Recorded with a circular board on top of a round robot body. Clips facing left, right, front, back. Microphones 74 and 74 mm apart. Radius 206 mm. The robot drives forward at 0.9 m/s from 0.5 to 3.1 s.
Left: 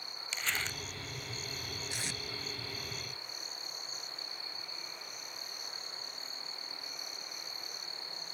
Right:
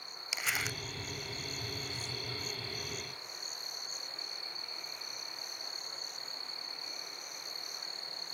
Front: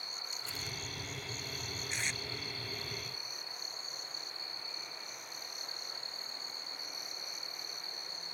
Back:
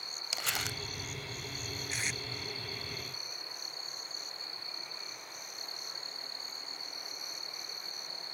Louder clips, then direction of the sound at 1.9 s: Left 2 dB, even; 95° left.